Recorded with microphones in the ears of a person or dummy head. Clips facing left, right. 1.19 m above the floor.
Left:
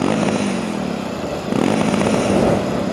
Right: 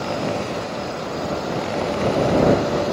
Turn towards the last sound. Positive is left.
turn(degrees=65)  # may be behind; listen again after turning